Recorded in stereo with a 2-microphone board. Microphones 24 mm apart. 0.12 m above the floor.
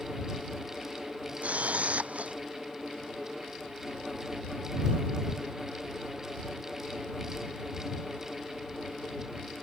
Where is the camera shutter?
80° right.